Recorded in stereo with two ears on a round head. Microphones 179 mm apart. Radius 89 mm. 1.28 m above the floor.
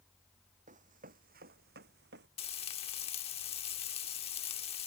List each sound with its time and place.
0.7 s running footsteps: 35° right (ahead or behind); by 2.3 s 55° right (ahead or behind)
2.4 s frying: 30° left (ahead or behind)